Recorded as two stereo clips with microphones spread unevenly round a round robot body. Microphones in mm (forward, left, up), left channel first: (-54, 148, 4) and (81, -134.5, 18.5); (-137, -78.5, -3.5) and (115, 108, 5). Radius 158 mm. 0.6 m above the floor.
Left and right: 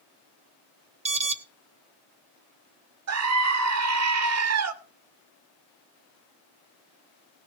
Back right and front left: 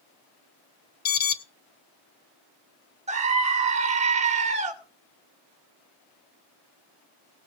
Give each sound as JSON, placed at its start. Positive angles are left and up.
{"t": 1.1, "sound": "an alarm", "azimuth_deg": -125, "distance_m": 1.0}
{"t": 3.1, "sound": "a scream", "azimuth_deg": -30, "distance_m": 1.9}